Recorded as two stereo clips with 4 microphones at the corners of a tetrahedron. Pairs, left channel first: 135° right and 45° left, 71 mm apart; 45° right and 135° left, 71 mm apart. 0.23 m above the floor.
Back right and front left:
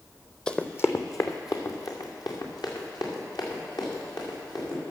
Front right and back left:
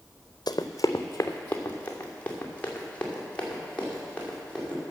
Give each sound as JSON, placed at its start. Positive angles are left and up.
{"t": 0.5, "sound": "running footsteps", "azimuth_deg": -55, "distance_m": 0.7}